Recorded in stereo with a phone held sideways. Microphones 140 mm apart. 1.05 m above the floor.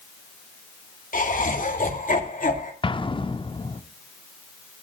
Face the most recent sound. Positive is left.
turn(degrees=35)  # may be behind; listen again after turning